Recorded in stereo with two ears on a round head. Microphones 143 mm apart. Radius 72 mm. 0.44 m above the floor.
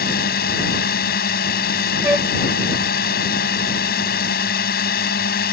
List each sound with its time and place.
0.0 s a drone: 60° left (ahead or behind)
2.0 s a flute: 10° right (ahead or behind)